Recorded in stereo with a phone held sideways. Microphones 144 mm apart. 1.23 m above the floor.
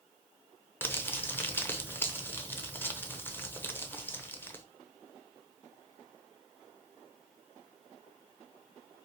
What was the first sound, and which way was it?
Crumpling, 15° left (ahead or behind).